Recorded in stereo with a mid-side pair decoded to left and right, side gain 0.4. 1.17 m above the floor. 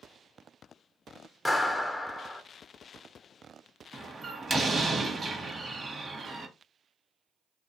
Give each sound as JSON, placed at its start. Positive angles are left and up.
{"t": 1.4, "sound": "a clap", "azimuth_deg": 20, "distance_m": 0.7}
{"t": 3.9, "sound": "a door slam", "azimuth_deg": -35, "distance_m": 1.0}